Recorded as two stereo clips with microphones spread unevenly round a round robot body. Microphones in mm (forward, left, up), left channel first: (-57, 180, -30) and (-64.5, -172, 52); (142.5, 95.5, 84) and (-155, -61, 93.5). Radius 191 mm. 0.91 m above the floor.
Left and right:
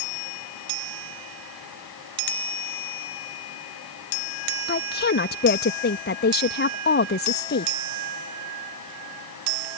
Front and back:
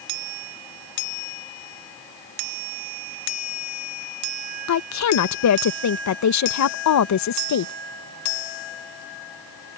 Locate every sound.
4.7 s a woman speaking: 45° left